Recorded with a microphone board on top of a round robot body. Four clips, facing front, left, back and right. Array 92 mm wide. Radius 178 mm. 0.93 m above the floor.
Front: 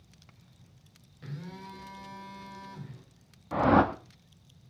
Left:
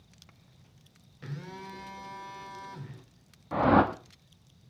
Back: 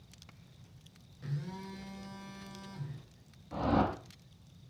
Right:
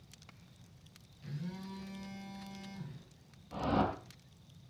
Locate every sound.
1.2 s a phone buzzing: 75° left, 4 m
3.5 s a whoosh: 45° left, 1.2 m